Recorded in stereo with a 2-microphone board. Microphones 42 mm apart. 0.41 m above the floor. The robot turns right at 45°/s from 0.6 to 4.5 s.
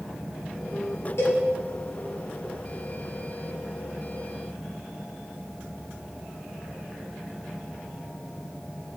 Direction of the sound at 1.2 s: 85° left.